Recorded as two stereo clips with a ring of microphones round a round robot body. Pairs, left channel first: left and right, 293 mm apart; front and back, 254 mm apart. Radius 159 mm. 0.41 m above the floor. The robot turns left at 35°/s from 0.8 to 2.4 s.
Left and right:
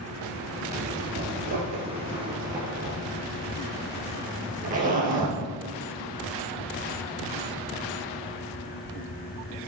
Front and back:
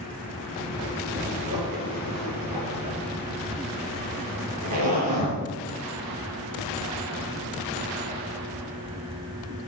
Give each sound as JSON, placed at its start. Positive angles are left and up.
{"t": 1.1, "sound": "a zipper", "azimuth_deg": -110, "distance_m": 3.5}